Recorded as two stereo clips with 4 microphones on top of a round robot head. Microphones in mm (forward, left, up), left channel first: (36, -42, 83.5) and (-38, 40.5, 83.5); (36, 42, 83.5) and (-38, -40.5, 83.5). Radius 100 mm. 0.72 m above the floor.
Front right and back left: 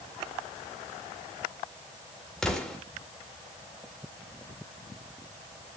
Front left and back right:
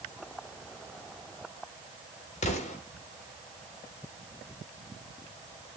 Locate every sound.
2.4 s an explosion: 40° left, 2 m